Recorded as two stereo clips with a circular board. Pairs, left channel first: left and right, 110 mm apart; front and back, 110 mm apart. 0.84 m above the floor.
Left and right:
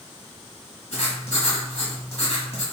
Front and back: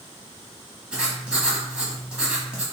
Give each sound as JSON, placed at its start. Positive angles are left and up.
{"t": 0.9, "sound": "writing", "azimuth_deg": 100, "distance_m": 1.5}